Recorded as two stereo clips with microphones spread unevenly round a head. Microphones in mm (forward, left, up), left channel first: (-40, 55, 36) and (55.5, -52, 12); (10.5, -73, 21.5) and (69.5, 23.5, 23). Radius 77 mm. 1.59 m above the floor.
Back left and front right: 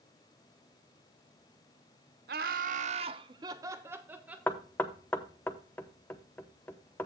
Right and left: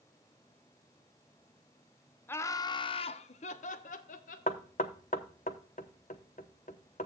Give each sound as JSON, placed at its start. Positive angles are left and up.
{"t": 2.3, "sound": "laughter", "azimuth_deg": -55, "distance_m": 0.6}
{"t": 4.5, "sound": "knocking", "azimuth_deg": -155, "distance_m": 0.7}